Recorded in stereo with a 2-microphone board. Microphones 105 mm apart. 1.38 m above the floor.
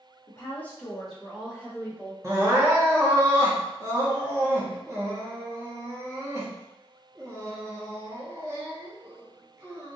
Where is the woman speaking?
30° left (ahead or behind), 0.9 m; by 2.1 s 20° right (ahead or behind), 1.7 m.